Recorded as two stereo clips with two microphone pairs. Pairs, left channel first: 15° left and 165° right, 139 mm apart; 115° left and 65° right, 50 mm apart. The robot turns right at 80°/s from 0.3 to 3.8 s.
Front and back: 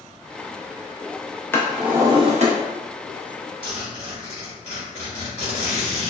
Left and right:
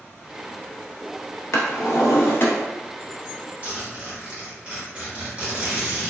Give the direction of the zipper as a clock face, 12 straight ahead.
1 o'clock.